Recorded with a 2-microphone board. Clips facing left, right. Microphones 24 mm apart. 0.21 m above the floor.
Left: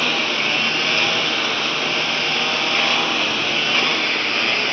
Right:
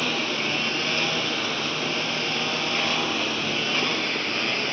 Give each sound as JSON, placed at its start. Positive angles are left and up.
{"t": 0.0, "sound": "a lawn mower", "side_deg": 20}